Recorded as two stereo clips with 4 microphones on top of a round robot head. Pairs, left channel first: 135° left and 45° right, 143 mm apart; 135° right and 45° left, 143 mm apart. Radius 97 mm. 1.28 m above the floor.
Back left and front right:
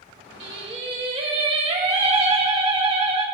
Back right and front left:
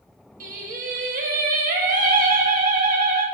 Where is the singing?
10° left, 2 m.